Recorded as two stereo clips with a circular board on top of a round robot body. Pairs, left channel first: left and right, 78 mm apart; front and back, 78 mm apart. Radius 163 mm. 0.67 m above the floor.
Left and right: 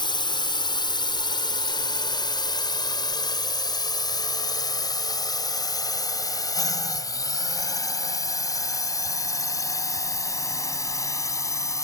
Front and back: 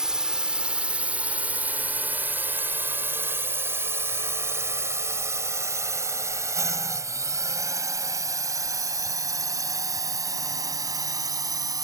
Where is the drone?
100° left; by 11.9 s 140° left.